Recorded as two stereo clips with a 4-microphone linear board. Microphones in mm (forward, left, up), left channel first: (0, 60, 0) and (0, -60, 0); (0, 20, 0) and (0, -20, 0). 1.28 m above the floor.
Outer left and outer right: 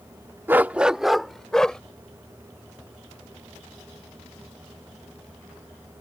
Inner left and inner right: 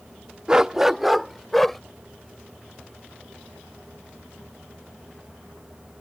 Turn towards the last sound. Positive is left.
turn(degrees=5)  # may be behind; listen again after turning